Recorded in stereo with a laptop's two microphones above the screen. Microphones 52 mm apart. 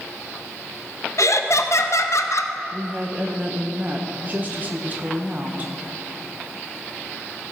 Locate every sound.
1.2 s laughter: 65° left (ahead or behind), 0.6 m
2.7 s a woman speaking: 35° right (ahead or behind), 0.8 m